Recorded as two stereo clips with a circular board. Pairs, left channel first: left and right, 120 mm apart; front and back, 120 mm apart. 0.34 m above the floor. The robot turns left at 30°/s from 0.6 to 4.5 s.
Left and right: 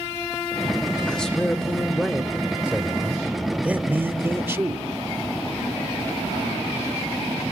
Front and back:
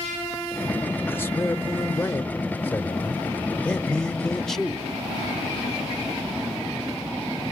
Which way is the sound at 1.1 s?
25° left.